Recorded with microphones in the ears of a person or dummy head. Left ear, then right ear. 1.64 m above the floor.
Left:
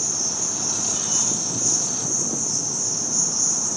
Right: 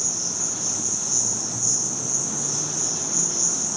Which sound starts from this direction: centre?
An insect, at 0.0 s.